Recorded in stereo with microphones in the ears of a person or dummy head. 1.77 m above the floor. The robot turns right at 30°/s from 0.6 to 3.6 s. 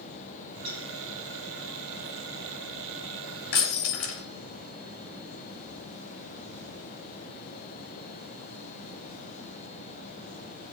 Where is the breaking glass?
75° left (ahead or behind), 4.5 m.